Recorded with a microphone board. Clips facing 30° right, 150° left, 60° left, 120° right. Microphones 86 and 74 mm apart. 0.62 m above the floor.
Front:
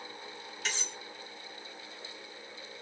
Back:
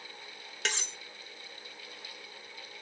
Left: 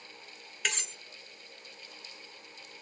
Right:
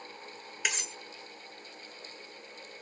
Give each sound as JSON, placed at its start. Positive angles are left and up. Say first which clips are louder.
{"t": 0.7, "sound": "cutlery clinking", "louder": "back 3 dB, even", "azimuth_deg": 160, "distance_m": 0.7}